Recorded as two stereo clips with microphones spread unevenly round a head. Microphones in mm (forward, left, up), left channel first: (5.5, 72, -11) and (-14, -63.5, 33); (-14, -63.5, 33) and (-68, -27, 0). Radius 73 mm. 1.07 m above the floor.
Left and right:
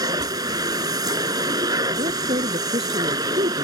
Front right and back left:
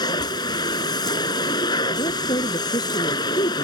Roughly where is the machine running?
Ahead right.